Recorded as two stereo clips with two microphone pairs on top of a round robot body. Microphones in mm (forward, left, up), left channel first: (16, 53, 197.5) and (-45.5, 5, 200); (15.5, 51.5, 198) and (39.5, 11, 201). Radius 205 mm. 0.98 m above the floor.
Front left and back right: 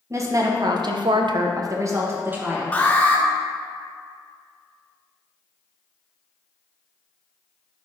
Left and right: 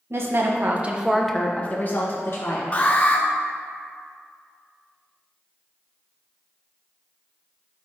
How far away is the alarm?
About 1.3 m.